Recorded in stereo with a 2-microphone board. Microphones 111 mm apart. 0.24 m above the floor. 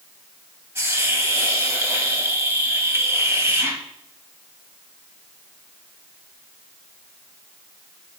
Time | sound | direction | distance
0.8 | a hiss | 25° right (ahead or behind) | 1.5 m